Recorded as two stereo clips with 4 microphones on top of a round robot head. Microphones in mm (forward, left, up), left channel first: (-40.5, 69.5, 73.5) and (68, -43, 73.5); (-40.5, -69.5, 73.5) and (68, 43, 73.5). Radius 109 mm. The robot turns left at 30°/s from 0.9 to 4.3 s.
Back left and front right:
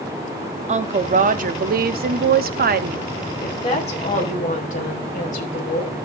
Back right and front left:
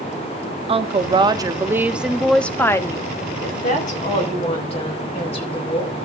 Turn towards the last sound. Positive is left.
turn(degrees=170)